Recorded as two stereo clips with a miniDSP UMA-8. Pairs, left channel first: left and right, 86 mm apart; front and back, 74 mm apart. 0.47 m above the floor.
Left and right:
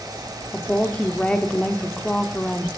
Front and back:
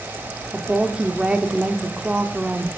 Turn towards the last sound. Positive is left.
turn(degrees=135)